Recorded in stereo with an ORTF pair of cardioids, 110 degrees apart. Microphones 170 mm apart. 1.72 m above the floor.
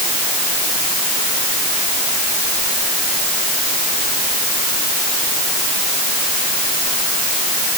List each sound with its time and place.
Only background noise.